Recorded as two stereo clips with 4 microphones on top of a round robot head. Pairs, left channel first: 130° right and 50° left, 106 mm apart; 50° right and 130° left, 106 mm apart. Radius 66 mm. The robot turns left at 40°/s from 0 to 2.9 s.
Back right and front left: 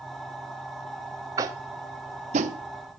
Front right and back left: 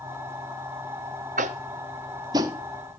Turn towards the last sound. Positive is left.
turn(degrees=50)